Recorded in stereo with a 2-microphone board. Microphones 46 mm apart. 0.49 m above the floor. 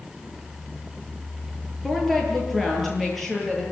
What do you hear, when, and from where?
1.8 s a woman speaking: 5° left (ahead or behind), 9 m; by 3.6 s centre (ahead or behind), 12 m